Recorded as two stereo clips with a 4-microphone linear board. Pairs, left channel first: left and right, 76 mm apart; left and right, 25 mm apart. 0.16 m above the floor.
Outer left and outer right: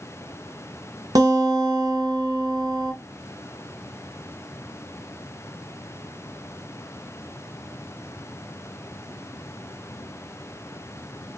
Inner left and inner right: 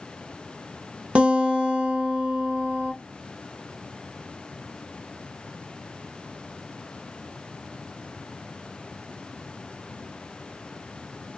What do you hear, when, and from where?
1.1 s a guitar: 55° right (ahead or behind), 0.8 m